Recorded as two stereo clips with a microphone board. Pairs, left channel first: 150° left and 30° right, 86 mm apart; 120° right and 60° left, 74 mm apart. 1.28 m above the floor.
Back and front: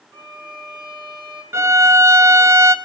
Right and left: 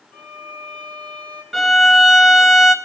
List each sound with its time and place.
0.1 s a violin: 50° right, 3 m
1.5 s a violin: 30° right, 0.6 m